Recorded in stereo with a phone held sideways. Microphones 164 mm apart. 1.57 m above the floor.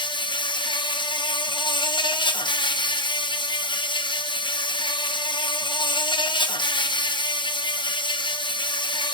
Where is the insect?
30° left (ahead or behind), 0.8 m.